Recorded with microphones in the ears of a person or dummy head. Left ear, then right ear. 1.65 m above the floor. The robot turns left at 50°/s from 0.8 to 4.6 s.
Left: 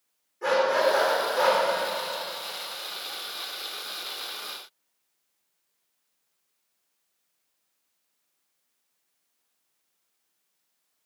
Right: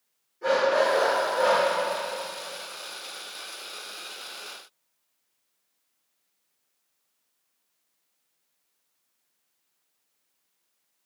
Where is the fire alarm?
No fire alarm in this recording.